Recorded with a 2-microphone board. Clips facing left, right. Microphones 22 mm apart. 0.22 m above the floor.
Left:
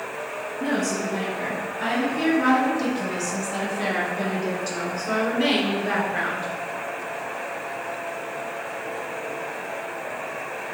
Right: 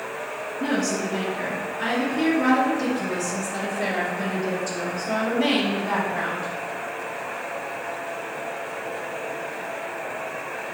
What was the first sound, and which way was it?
A woman speaking, 25° right (ahead or behind).